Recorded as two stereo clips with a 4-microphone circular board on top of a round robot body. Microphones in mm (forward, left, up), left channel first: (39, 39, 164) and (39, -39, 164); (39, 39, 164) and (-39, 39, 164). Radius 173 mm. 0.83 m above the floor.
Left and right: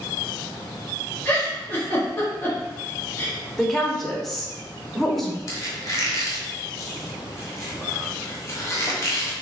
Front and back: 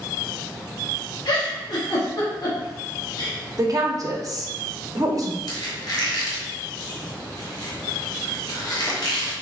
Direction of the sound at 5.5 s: 40° left.